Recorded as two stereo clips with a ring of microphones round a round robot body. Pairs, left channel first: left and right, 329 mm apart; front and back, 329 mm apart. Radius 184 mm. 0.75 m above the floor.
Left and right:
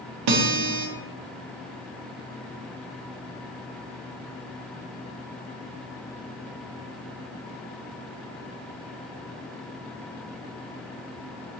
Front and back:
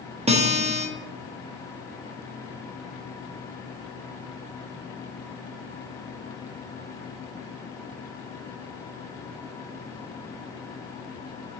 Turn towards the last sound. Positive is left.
turn(degrees=-110)